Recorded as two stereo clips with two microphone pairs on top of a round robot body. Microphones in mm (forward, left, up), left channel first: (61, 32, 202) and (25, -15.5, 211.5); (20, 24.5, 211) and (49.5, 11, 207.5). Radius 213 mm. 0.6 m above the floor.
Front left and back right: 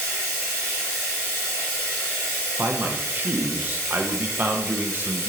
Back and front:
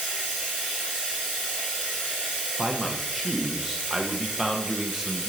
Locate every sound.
0.0 s running water: 70° right, 1.6 m
2.6 s a man speaking: 85° right, 0.6 m